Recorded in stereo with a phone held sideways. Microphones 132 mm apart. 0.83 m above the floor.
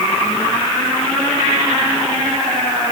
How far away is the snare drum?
I don't hear a snare drum.